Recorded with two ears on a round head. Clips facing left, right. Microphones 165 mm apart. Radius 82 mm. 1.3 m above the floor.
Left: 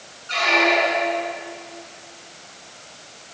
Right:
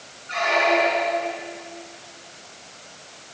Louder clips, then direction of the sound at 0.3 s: Even; 50° left (ahead or behind).